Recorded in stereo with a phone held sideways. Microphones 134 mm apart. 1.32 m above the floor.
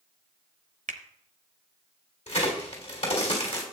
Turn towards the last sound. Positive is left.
turn(degrees=60)  # may be behind; listen again after turning